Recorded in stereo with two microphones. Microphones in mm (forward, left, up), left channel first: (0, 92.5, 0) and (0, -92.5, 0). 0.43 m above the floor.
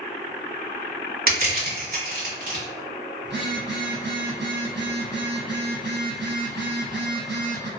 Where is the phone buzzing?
70° right (ahead or behind), 0.7 m.